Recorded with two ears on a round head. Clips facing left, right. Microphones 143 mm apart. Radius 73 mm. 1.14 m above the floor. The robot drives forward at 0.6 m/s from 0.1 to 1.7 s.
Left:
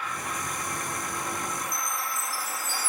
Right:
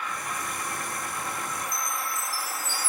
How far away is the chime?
About 3.5 m.